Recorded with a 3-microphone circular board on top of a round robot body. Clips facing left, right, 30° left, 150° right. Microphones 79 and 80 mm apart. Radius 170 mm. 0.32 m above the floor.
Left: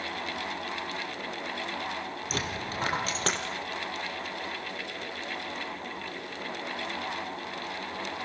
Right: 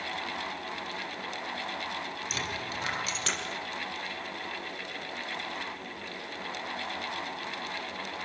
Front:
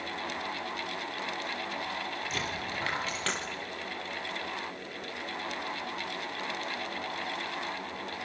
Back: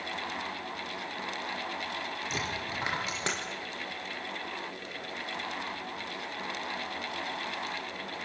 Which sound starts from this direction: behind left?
A dropped coin, at 2.3 s.